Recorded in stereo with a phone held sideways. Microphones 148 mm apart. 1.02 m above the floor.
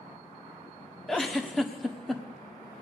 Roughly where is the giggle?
Centre.